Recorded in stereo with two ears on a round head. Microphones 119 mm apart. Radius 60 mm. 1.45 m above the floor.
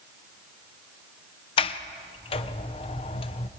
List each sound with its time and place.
1.6 s a sliding door: 45° left (ahead or behind), 0.8 m